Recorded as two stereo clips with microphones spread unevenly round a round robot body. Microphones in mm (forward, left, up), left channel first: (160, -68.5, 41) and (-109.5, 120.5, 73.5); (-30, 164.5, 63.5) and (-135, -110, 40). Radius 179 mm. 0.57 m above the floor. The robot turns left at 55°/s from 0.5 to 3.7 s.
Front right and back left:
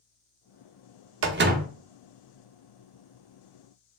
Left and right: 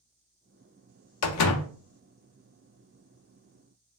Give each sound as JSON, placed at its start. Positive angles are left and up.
{"t": 1.2, "sound": "a door slam", "azimuth_deg": 95, "distance_m": 0.5}